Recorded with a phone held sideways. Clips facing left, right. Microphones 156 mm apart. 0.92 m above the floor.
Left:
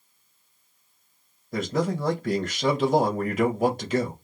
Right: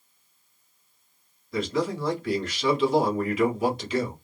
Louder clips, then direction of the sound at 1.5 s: Left 1 dB; 45° left (ahead or behind).